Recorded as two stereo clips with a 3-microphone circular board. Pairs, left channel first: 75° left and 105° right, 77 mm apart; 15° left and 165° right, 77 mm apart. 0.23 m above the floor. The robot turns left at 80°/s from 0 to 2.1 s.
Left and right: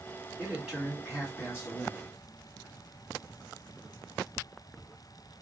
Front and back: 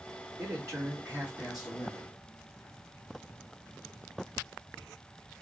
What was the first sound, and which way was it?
A man speaking, 155° right.